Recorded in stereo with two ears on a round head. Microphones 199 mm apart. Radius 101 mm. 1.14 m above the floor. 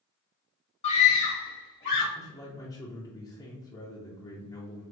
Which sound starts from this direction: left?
A scream, at 0.8 s.